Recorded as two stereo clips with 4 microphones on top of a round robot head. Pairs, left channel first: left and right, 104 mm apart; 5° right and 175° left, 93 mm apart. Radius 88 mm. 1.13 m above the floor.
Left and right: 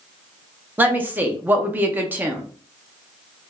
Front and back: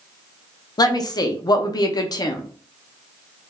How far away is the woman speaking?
About 0.5 m.